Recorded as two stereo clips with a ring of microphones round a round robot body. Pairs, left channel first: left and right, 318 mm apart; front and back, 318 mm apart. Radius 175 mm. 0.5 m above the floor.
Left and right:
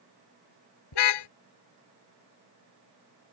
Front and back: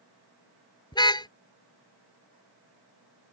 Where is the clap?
I don't hear a clap.